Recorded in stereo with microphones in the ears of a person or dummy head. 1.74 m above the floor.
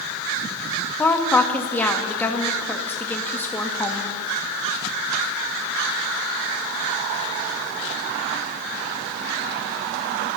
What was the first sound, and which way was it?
A woman speaking, 15° left (ahead or behind).